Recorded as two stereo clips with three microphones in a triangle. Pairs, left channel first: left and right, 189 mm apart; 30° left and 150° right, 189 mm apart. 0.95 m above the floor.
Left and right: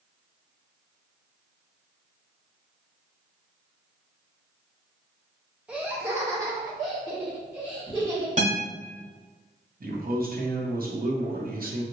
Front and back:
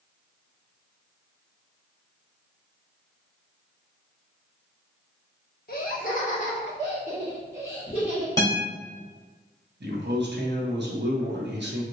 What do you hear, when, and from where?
5.7 s laughter: 5° right, 0.7 m; by 8.3 s 25° right, 2.5 m
8.4 s a guitar: 45° right, 1.7 m
9.8 s a man speaking: 130° right, 0.8 m